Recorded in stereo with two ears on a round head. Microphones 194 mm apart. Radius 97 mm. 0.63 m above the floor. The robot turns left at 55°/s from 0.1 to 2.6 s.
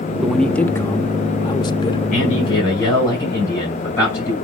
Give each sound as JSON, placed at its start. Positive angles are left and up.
{"t": 0.2, "sound": "a man speaking", "side_deg": 0, "distance_m": 0.7}
{"t": 2.1, "sound": "a man speaking", "side_deg": 40, "distance_m": 5.0}